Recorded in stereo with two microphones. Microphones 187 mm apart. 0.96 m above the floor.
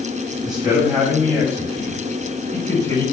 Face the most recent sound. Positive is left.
turn(degrees=15)  # may be behind; listen again after turning